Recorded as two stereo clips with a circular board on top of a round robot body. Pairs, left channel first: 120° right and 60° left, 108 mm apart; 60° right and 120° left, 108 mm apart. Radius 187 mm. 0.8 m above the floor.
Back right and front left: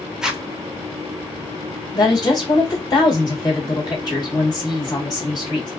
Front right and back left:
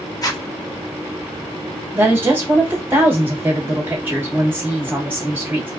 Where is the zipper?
20° right, 1.1 m.